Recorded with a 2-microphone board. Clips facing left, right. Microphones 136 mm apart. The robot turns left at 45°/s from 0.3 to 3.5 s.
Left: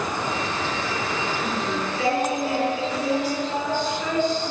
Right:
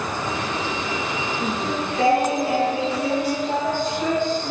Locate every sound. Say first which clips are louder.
1.4 s singing: right 1 dB; 30° right, 4 m; by 4.5 s 125° right, 4 m